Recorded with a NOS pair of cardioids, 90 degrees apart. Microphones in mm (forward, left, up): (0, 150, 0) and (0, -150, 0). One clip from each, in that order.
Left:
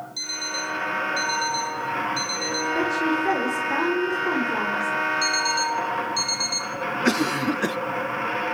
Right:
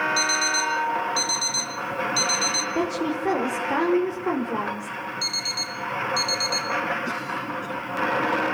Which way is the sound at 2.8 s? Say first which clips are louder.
Left 3 dB; 20° right.